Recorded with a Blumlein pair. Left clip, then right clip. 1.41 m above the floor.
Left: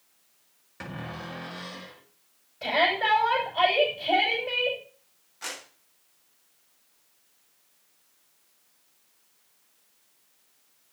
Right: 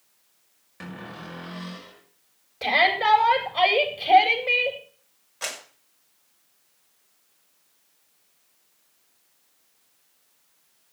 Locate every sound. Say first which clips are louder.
0.8 s a cupboard door: left 1 dB; 5° left, 5.5 m
2.6 s a shout: right 4 dB; 30° right, 8 m
5.4 s a clap: right 4 dB; 35° right, 7 m